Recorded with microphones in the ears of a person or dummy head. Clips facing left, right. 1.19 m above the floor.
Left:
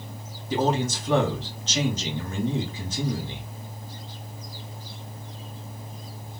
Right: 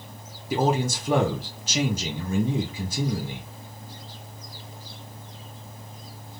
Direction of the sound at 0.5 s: 10° right (ahead or behind).